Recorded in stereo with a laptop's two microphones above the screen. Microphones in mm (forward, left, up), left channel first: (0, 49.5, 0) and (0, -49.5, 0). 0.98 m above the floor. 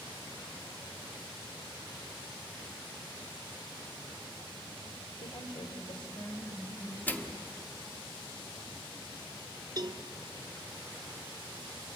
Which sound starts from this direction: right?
A cowbell, at 9.8 s.